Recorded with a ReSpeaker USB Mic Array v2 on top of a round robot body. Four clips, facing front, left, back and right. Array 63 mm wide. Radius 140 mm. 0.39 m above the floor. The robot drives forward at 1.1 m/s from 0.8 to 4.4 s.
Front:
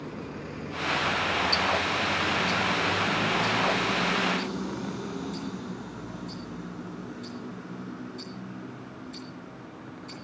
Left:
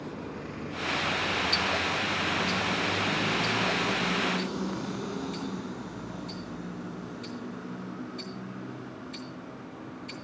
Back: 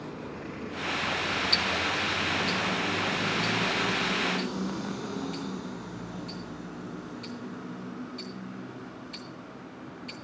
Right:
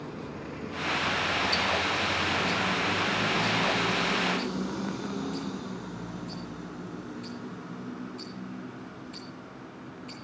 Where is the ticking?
175° left, 0.7 m; by 10.1 s straight behind, 3.5 m.